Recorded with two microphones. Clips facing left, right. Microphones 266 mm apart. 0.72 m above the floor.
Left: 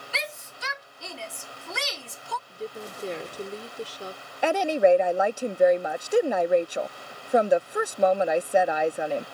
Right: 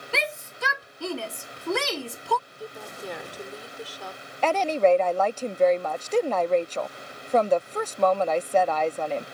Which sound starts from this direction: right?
A shout, at 0.1 s.